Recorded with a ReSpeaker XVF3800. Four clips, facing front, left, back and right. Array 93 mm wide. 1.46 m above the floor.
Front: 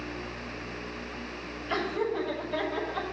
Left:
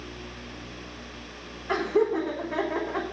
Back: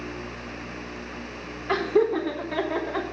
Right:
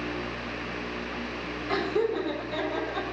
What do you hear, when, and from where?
1.7 s laughter: 160° left, 4.5 m; by 3.0 s 150° left, 3.5 m